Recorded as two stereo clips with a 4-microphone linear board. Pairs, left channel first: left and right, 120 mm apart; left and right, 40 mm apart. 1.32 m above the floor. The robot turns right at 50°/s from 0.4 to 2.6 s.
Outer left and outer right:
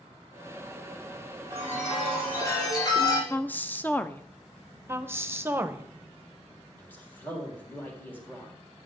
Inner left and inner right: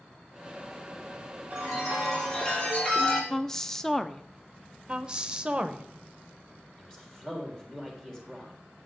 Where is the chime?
20° right, 6 m; by 3.2 s 35° left, 6 m.